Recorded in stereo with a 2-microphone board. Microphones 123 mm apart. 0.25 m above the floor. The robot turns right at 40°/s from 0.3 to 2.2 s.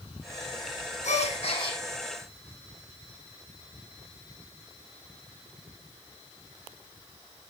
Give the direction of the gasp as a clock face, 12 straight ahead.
8 o'clock.